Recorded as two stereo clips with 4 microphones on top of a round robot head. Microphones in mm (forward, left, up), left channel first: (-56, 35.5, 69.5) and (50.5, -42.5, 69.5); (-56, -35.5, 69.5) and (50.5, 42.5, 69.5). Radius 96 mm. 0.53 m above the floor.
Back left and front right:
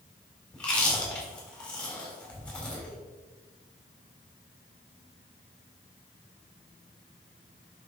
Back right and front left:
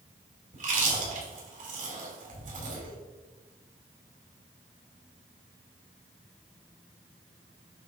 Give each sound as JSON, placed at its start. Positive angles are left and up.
{"t": 0.5, "sound": "chewing", "azimuth_deg": 60, "distance_m": 3.5}